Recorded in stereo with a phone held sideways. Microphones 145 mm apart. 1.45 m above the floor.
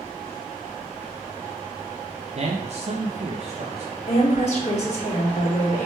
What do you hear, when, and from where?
2.4 s a man speaking: 50° right (ahead or behind), 0.5 m
4.1 s a woman speaking: 50° left (ahead or behind), 1.6 m